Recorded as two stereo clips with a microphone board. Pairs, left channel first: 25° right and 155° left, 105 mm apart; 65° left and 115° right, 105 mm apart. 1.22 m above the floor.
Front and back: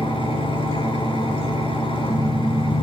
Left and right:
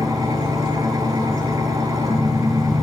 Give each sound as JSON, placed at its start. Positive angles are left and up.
{"t": 0.0, "sound": "an engine running", "azimuth_deg": -60, "distance_m": 8.0}